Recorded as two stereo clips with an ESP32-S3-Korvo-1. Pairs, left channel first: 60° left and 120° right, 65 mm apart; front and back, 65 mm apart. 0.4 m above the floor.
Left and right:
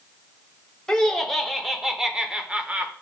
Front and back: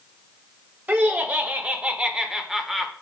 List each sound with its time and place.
0.9 s laughter: 135° left, 1.1 m; by 2.9 s 90° right, 0.9 m